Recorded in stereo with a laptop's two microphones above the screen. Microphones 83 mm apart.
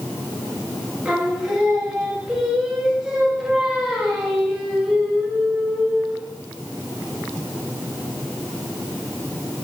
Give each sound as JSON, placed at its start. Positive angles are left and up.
{"t": 1.1, "sound": "singing", "side_deg": -10, "distance_m": 1.2}